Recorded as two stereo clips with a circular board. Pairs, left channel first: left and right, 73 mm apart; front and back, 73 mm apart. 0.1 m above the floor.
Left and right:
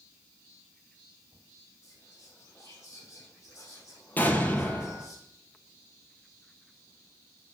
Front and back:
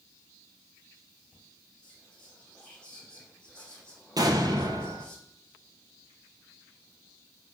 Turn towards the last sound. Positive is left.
turn(degrees=155)